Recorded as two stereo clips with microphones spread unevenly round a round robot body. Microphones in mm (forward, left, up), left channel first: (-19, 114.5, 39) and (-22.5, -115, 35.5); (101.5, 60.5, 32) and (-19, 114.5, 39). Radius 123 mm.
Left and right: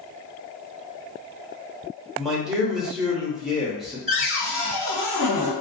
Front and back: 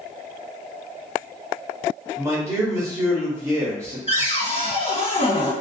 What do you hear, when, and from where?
2.2 s a man speaking: 175° right, 0.8 m
4.1 s a cupboard door: 10° left, 1.8 m